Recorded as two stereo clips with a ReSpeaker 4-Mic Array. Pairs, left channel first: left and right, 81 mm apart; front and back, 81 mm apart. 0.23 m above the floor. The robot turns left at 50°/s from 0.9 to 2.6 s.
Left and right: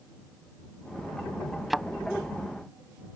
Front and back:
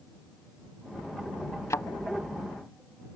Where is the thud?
Straight ahead; by 1.9 s 10° right.